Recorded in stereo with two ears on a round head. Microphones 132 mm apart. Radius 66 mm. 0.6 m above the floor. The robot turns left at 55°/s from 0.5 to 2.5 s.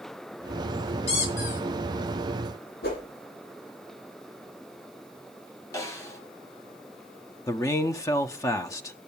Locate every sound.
1.1 s a squeak: 135° left, 5 m; by 1.6 s 100° left, 5 m
2.8 s a whoosh: 80° left, 9.5 m
5.7 s a snare drum: 20° left (ahead or behind), 4 m
7.5 s a man speaking: 25° left (ahead or behind), 0.8 m